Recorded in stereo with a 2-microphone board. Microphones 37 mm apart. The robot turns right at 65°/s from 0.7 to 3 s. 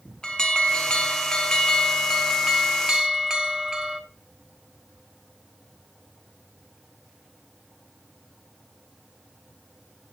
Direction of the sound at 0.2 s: 20° left (ahead or behind).